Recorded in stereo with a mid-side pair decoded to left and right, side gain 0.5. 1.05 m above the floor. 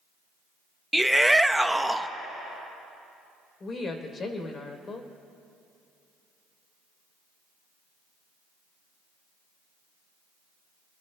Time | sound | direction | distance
0.9 | a shout | 5° right | 0.8 m
3.6 | a woman speaking | 40° left | 3.5 m